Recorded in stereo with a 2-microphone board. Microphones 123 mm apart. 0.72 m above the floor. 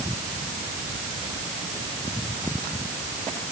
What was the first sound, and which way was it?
Only background noise.